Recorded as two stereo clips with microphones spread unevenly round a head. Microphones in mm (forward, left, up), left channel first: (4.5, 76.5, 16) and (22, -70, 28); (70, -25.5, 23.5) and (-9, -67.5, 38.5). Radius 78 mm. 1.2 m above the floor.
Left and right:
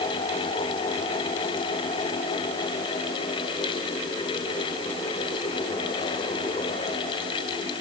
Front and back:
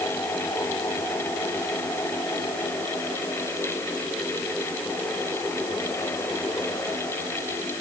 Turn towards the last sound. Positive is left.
No sound to turn to.